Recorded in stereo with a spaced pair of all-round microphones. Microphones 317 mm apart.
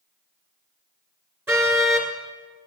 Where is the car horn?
5° right (ahead or behind), 2.5 m.